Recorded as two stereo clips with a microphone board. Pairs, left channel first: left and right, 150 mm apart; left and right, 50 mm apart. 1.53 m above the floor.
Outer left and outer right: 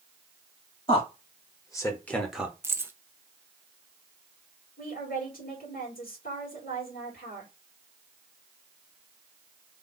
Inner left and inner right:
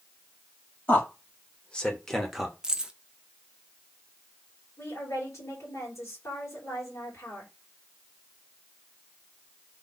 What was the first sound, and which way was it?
A man speaking, 35° left (ahead or behind).